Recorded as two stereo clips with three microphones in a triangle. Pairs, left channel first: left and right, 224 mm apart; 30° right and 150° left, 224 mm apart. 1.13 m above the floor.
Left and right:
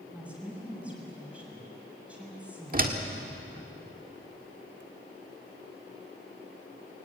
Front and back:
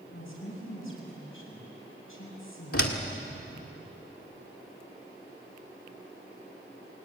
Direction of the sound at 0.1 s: 5° right.